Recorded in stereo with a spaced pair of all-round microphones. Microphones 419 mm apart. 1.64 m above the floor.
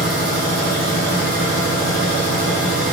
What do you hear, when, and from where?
0.0 s a machine running: 70° left (ahead or behind), 3 m